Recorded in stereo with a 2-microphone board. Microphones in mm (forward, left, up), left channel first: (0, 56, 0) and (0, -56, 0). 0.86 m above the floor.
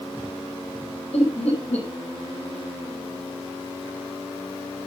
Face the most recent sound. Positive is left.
turn(degrees=70)  # may be behind; listen again after turning